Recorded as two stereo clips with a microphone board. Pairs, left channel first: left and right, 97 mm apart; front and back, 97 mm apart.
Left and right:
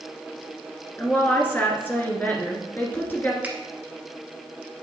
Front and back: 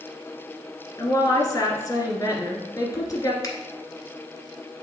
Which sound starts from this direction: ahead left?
A woman speaking, at 1.0 s.